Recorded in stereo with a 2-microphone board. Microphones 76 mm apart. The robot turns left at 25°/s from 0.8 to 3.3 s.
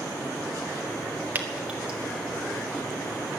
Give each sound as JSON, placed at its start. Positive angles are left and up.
{"t": 1.4, "sound": "dripping", "side_deg": -25, "distance_m": 1.9}